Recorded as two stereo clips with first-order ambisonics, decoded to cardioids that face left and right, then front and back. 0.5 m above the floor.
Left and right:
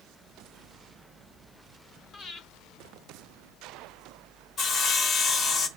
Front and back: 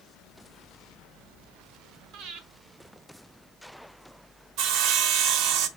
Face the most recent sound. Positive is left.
turn(degrees=150)